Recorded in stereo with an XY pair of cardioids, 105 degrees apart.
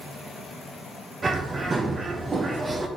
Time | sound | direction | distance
1.2 | a bird | 30° right | 0.9 m